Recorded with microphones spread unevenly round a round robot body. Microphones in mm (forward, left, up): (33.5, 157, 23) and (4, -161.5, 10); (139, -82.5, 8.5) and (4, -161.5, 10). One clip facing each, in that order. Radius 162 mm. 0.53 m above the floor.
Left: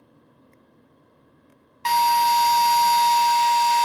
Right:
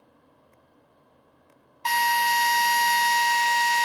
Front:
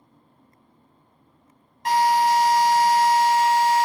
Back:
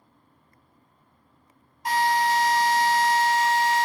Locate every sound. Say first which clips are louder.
1.9 s a drill: left 6 dB, front 4 dB; 75° left, 1.5 m